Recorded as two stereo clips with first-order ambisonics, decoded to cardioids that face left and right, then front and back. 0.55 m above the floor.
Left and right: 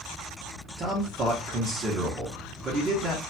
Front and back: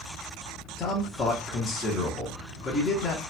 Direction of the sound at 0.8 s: 45° right.